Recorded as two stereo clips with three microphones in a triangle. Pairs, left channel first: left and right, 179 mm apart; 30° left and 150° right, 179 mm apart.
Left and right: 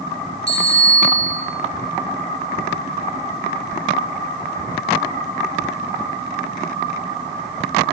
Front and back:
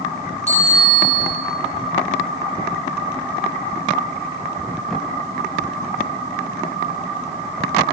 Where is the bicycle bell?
80° left, 3.5 m.